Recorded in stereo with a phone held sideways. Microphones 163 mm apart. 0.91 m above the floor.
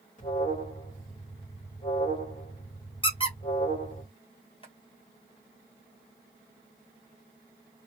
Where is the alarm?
45° left (ahead or behind), 1.5 m.